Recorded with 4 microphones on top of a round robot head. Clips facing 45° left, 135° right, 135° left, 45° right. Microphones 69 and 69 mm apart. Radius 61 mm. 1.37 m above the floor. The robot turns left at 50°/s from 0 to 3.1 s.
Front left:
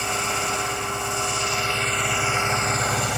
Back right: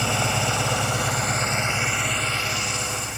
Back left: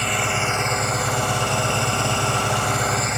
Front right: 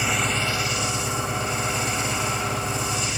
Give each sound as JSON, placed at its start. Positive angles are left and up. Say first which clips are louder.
{"t": 0.0, "sound": "an engine running", "louder": "back right 1 dB, back left 2 dB", "azimuth_deg": -125}